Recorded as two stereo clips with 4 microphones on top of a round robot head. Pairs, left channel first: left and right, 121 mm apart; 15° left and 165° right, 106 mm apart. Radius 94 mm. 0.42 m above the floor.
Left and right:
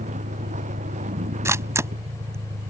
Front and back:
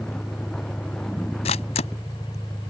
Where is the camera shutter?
20° right.